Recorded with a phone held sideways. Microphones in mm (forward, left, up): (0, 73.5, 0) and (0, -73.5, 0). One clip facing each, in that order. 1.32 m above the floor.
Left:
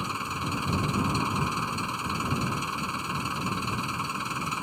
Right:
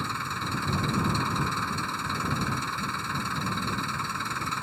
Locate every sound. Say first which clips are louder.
0.0 s an engine running: left 1 dB; 15° left (ahead or behind)